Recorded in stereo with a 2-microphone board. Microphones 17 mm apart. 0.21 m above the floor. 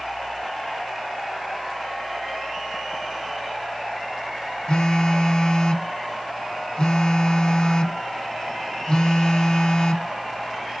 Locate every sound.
4.7 s a phone buzzing: 50° left (ahead or behind), 0.6 m